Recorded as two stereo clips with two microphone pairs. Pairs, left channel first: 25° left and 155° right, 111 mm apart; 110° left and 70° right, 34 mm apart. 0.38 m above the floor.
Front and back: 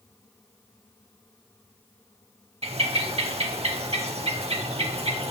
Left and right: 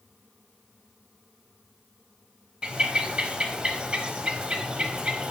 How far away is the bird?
About 0.5 m.